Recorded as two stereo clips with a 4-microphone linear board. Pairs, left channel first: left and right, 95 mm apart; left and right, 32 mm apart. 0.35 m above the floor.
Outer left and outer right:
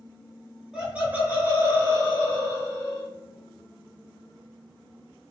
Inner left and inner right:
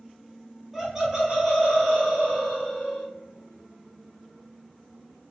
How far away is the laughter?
About 1.1 m.